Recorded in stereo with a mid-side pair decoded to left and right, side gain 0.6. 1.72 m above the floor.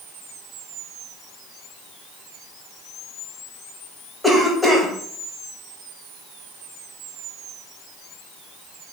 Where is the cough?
Straight ahead, 1.0 m.